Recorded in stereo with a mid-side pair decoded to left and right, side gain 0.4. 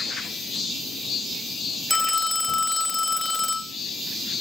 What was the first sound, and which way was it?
A phone ringing, 20° left.